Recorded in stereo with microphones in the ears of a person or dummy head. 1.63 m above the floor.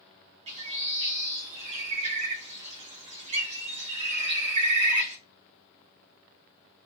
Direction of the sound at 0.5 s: 30° right (ahead or behind).